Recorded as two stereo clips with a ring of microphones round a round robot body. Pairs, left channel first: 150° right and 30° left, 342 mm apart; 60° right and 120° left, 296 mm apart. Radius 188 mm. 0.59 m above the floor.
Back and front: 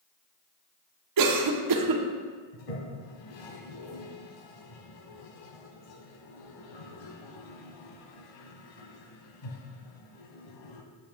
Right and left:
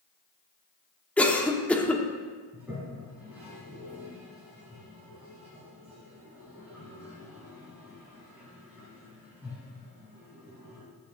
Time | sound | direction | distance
1.2 | a cough | 25° left | 1.2 m
2.5 | a toilet flushing | 155° right | 1.1 m